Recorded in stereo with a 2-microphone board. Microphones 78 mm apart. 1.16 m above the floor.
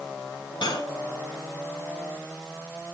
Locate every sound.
0.6 s cutlery clinking: 70° left (ahead or behind), 3 m